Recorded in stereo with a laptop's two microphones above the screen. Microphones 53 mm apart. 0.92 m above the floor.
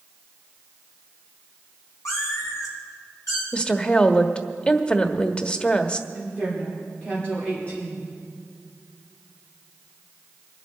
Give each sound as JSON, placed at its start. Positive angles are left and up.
{"t": 2.0, "sound": "a cat meowing", "side_deg": 85, "distance_m": 3.5}
{"t": 3.5, "sound": "a woman speaking", "side_deg": 20, "distance_m": 1.3}
{"t": 6.1, "sound": "a woman speaking", "side_deg": 25, "distance_m": 2.5}